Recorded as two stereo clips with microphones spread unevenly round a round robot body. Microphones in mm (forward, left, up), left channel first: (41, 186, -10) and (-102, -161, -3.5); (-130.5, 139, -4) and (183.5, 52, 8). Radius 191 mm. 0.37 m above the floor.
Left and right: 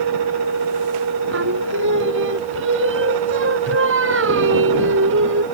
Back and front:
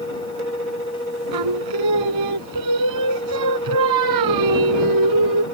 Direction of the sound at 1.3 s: 55° right.